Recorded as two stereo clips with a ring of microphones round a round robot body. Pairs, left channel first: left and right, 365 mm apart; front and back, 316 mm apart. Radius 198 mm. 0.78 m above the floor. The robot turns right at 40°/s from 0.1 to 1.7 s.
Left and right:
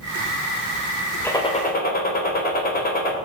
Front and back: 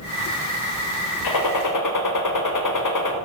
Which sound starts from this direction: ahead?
A gunshot, at 1.2 s.